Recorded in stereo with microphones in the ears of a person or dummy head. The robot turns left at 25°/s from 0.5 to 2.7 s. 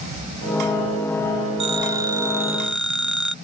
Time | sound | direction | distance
1.6 | a phone ringing | 30° right (ahead or behind) | ?